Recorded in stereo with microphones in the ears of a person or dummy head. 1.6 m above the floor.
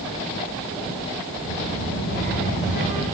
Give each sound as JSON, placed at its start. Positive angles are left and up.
{"t": 1.4, "sound": "a child speaking", "side_deg": 55, "distance_m": 7.5}